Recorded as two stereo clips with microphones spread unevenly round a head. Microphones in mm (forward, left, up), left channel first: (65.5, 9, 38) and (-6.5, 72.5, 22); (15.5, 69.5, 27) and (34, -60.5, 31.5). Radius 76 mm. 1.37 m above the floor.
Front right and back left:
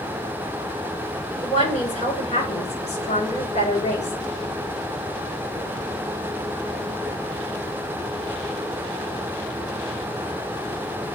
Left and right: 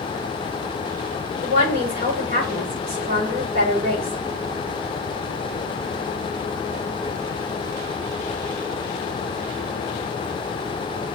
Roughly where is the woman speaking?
Ahead right.